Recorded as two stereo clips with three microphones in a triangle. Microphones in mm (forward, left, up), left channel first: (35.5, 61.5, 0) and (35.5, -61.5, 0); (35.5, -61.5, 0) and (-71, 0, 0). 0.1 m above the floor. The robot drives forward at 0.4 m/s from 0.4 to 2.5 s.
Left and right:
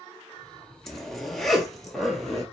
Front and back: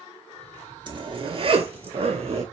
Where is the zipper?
175° left, 0.7 m; by 2.4 s straight behind, 1.3 m.